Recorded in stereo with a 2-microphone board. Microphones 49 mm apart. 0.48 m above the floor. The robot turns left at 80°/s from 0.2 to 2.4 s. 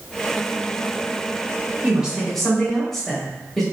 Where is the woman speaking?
150° right, 1.2 m; by 3.6 s 165° left, 1.2 m.